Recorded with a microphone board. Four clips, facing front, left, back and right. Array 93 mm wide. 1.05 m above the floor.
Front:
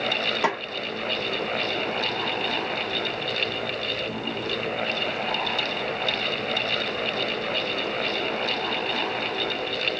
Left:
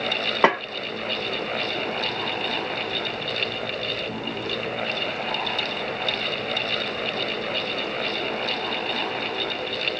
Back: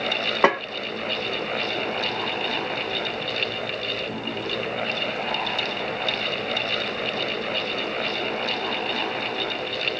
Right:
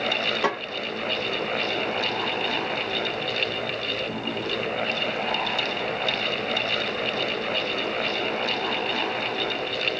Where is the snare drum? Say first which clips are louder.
Left 8 dB, back 7 dB; 130° left, 0.8 m.